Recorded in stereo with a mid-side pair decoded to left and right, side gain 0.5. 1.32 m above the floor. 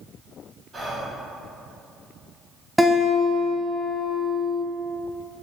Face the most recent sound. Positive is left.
turn(degrees=0)